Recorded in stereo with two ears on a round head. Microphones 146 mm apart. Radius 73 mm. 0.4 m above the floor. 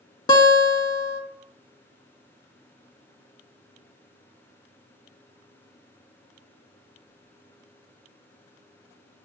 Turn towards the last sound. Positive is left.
turn(degrees=25)  # may be behind; listen again after turning